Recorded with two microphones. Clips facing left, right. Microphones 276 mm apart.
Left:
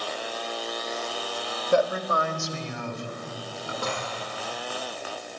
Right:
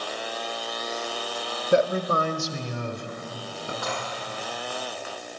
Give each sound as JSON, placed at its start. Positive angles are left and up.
{"t": 1.7, "sound": "a man speaking", "side_deg": -20, "distance_m": 1.0}
{"t": 3.8, "sound": "dishes clattering", "side_deg": 35, "distance_m": 8.0}